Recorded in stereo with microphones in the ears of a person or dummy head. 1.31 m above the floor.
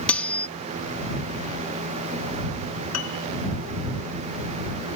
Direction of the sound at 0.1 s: 5° left (ahead or behind).